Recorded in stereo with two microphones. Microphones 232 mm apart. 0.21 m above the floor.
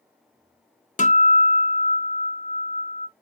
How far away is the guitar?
About 0.6 m.